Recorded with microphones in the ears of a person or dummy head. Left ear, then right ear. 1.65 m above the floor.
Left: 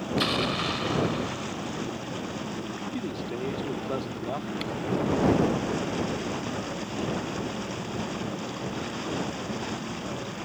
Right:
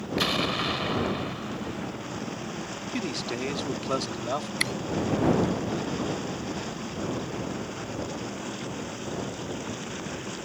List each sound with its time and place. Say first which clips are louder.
0.2 s an explosion: right 1 dB; 10° right (ahead or behind)
2.9 s a man speaking: right 5 dB; 65° right (ahead or behind)
4.6 s a camera shutter: right 5 dB; 45° right (ahead or behind)